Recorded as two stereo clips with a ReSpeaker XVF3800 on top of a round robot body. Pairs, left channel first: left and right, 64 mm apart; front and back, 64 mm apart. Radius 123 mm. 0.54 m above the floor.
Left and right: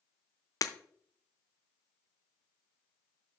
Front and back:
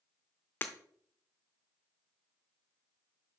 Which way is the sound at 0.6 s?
60° left.